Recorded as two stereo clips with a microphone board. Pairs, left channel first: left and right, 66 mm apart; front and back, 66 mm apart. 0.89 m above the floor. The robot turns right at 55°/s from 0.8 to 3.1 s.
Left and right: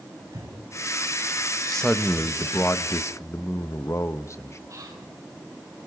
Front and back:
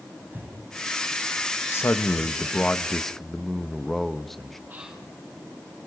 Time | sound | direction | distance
0.3 | breathing | 120° right | 7 m
1.7 | a man speaking | 5° left | 1.1 m
4.7 | whispering | 115° right | 8.5 m